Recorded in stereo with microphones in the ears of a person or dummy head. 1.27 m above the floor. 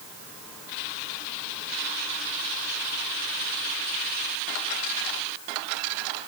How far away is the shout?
I don't hear a shout.